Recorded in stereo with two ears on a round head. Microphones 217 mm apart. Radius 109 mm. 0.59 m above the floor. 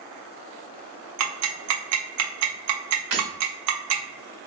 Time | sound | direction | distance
1.2 | ticking | 65° right (ahead or behind) | 0.8 m
3.1 | breaking glass | 70° right (ahead or behind) | 1.4 m